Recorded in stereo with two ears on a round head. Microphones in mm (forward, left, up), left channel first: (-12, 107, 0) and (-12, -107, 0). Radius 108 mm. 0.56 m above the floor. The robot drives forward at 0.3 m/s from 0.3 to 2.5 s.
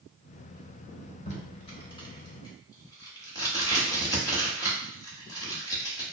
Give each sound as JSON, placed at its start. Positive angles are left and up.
{"t": 1.3, "sound": "tape being pulled", "side_deg": 30, "distance_m": 0.5}